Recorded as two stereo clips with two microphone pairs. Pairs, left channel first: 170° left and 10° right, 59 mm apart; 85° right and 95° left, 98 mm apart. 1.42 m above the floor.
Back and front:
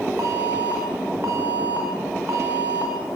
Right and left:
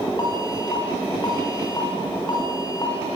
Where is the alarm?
55° right, 7.5 m.